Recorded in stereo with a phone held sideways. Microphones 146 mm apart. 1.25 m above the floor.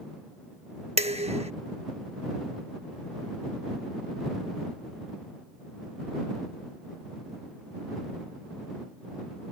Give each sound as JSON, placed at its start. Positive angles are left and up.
{"t": 1.0, "sound": "dishes clattering", "side_deg": -45}